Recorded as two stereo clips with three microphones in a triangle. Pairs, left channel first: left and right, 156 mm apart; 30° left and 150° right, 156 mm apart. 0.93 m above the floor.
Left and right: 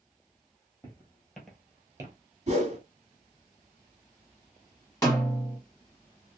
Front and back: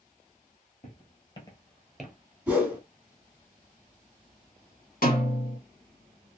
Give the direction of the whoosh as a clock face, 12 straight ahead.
3 o'clock.